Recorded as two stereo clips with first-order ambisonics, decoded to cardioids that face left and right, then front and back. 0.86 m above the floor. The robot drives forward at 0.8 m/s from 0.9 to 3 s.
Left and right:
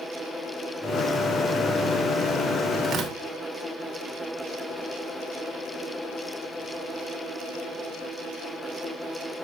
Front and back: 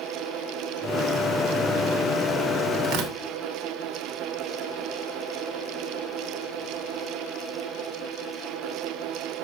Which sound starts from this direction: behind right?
Tearing paper, at 2.8 s.